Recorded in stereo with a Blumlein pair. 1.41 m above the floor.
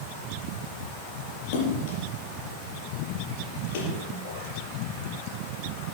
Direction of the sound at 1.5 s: 55° left.